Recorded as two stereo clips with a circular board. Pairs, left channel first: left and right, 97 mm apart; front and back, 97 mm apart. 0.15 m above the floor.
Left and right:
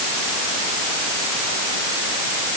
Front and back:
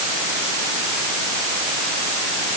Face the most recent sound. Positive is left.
No sound to turn to.